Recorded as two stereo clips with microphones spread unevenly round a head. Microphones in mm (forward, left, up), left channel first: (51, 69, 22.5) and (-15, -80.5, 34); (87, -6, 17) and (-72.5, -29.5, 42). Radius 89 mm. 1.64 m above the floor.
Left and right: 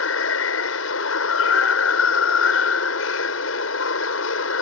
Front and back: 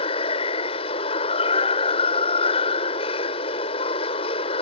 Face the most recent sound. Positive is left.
turn(degrees=70)